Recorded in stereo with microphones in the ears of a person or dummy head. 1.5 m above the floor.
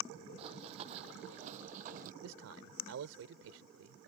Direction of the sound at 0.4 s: 35° right (ahead or behind).